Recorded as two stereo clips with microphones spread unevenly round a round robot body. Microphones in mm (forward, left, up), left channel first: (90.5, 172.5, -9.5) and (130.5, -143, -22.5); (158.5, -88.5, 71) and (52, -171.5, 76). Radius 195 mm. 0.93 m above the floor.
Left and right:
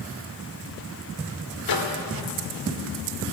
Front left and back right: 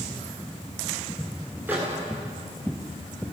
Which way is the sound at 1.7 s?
135° left.